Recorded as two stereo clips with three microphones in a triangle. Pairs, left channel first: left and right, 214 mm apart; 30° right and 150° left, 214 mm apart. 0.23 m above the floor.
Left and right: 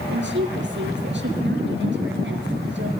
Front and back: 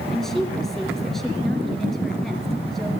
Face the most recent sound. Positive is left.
turn(degrees=-120)